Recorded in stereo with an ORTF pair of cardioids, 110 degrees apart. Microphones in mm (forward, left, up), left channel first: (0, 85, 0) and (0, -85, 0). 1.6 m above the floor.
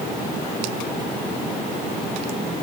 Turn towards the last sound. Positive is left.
No sound to turn to.